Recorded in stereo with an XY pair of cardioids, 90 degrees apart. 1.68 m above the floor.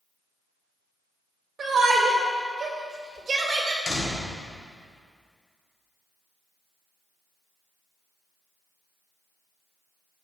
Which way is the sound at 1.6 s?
35° right.